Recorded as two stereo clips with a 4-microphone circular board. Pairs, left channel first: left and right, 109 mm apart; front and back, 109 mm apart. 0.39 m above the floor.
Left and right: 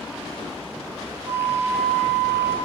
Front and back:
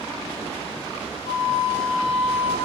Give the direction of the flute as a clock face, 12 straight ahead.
1 o'clock.